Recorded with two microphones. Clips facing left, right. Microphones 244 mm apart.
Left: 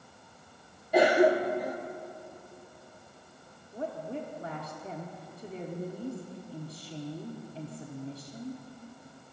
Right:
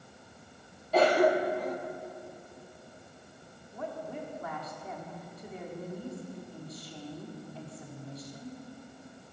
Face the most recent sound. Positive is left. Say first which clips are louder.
# left 3 dB
turn(degrees=30)  # may be behind; listen again after turning